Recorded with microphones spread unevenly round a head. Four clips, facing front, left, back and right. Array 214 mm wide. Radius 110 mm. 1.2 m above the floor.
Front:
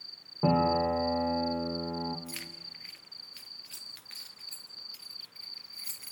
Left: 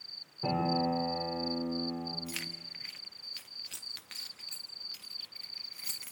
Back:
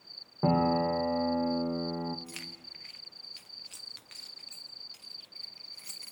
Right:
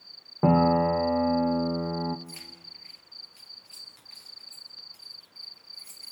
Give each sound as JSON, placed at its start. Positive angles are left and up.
{"t": 0.4, "sound": "a piano", "azimuth_deg": -70, "distance_m": 1.4}
{"t": 2.3, "sound": "keys jangling", "azimuth_deg": 90, "distance_m": 1.2}